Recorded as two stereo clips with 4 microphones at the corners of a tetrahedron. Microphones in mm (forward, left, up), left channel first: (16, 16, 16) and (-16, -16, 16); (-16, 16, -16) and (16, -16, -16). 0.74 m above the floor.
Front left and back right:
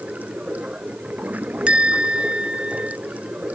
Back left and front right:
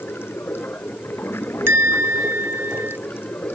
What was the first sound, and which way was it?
Running water, 170° left.